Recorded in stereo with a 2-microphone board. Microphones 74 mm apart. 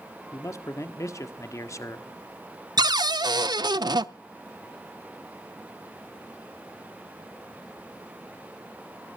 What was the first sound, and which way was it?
A man speaking, 45° left (ahead or behind).